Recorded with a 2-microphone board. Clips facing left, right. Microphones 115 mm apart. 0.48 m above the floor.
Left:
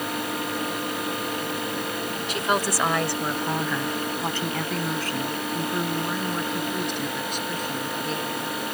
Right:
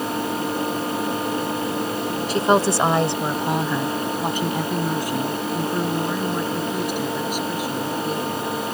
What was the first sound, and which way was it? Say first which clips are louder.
A woman speaking: right 7 dB; 35° right (ahead or behind).